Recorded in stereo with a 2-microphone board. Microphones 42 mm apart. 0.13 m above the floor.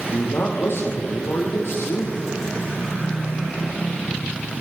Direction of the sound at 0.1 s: 75° left (ahead or behind).